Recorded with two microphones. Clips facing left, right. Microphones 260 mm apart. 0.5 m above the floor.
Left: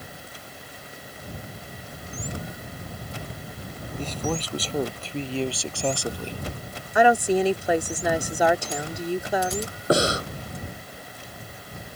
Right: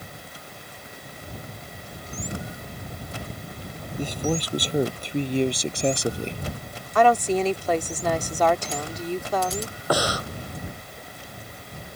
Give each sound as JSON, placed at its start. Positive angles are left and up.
{"t": 4.0, "sound": "a man speaking", "side_deg": -10}
{"t": 7.0, "sound": "a woman speaking", "side_deg": 10}
{"t": 9.9, "sound": "breathing", "side_deg": 25}